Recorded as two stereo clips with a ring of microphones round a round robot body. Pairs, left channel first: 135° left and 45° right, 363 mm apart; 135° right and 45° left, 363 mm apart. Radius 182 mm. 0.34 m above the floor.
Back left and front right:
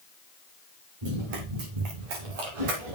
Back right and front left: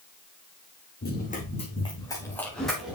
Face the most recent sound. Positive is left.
turn(degrees=-45)